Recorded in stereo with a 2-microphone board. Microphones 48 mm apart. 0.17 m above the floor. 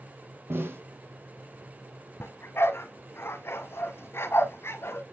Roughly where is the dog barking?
Left.